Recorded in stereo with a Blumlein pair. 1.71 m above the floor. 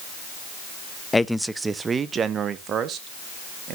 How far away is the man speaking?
About 0.5 m.